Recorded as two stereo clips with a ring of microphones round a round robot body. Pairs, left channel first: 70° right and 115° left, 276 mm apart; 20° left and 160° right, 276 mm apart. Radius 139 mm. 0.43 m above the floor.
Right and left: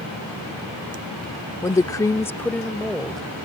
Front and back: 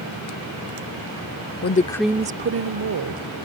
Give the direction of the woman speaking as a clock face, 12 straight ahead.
12 o'clock.